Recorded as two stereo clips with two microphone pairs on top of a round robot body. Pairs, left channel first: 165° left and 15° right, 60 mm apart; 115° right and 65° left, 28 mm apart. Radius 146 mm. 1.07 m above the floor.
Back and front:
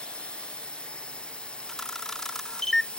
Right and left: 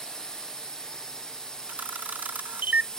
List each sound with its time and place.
0.0 s a drone: 145° right
1.7 s a camera shutter: 80° left